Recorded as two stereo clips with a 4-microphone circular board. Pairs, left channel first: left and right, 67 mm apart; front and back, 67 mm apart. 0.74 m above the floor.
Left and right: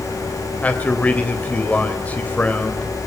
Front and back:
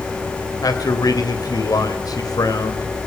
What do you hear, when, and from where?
0.6 s a man speaking: 25° left, 3 m